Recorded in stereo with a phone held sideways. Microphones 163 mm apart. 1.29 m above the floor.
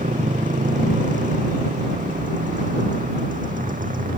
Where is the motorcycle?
50° right (ahead or behind); by 4.2 s 55° right (ahead or behind).